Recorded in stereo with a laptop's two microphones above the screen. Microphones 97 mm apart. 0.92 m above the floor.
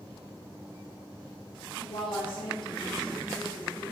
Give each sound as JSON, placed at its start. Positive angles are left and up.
{"t": 1.8, "sound": "a woman speaking", "side_deg": 65, "distance_m": 1.4}